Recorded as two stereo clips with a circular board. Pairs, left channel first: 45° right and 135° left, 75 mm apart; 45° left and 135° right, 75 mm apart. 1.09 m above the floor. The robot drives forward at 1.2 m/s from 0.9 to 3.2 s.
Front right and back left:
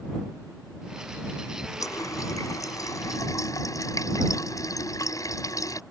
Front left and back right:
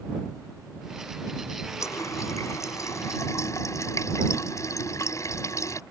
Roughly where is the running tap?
Ahead.